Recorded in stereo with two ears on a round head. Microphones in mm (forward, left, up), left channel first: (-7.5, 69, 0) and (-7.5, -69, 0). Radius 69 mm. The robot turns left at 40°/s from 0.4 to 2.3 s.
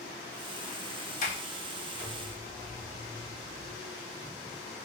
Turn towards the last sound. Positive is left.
turn(degrees=15)  # may be behind; listen again after turning